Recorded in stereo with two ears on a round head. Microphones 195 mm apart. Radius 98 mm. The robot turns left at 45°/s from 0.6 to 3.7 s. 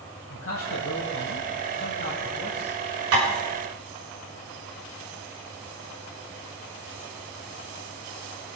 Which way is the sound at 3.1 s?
80° right.